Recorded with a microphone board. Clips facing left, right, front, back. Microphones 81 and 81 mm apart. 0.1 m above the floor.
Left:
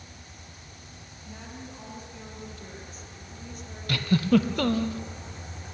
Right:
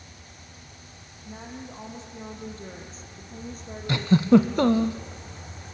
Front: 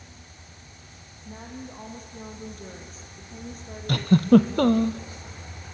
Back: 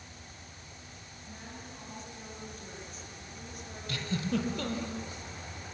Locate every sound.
1.2 s a woman speaking: 25° right, 3.5 m; by 4.9 s 60° right, 3 m
3.9 s a giggle: 25° right, 0.8 m